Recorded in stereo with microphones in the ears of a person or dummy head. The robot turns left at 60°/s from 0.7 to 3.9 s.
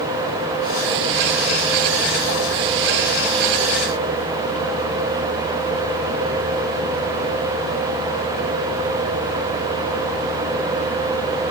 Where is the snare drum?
No snare drum in this recording.